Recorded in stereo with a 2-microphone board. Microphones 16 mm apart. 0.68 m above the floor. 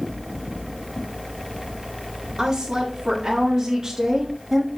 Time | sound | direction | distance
2.4 | a woman speaking | 60° right (ahead or behind) | 1.8 m